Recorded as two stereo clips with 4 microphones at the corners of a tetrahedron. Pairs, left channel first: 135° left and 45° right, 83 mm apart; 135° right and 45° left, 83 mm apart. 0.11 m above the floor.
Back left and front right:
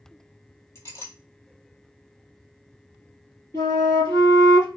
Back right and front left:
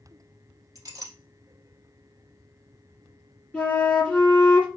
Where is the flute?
150° left, 1.9 m.